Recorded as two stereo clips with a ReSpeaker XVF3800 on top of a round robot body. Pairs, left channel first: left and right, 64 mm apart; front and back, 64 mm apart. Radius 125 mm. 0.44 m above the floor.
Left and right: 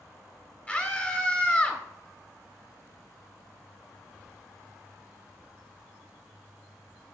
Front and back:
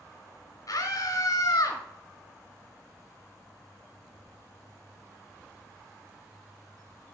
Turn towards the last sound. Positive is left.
turn(degrees=20)